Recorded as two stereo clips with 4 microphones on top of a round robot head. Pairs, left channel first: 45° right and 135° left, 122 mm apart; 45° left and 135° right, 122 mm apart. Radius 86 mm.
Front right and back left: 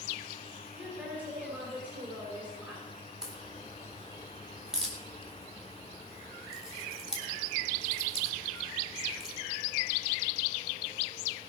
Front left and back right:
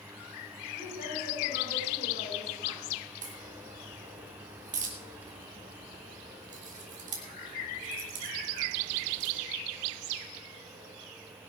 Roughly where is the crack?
Behind right.